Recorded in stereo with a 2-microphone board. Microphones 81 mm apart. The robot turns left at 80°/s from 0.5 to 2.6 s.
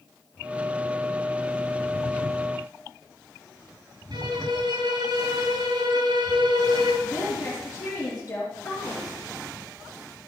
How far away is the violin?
About 3 m.